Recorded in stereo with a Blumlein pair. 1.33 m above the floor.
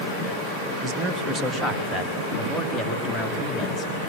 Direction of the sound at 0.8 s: 20° right.